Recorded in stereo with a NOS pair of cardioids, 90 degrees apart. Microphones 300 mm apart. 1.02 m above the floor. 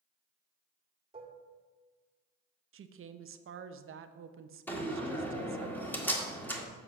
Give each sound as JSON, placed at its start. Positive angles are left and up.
{"t": 1.1, "sound": "dishes clattering", "azimuth_deg": -20, "distance_m": 1.5}
{"t": 2.7, "sound": "a woman speaking", "azimuth_deg": -45, "distance_m": 0.7}
{"t": 4.7, "sound": "a door slam", "azimuth_deg": 5, "distance_m": 1.7}